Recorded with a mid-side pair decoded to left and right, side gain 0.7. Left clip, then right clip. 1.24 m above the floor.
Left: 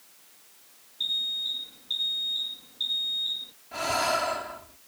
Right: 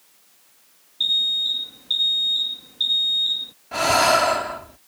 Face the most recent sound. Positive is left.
turn(degrees=-45)